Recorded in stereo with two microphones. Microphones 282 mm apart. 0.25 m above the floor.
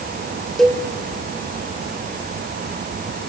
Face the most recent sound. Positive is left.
turn(degrees=0)  # may be behind; listen again after turning